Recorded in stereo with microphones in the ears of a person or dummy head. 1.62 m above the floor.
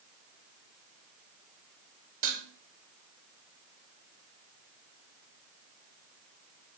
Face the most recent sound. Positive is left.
turn(degrees=-45)  # may be behind; listen again after turning